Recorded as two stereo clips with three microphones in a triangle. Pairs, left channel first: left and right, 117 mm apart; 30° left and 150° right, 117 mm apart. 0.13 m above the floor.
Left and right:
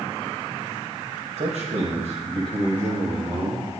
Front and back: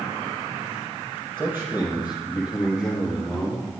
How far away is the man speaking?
About 4 m.